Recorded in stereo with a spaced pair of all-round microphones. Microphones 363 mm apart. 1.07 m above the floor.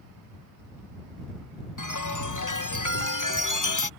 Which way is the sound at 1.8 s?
55° left (ahead or behind).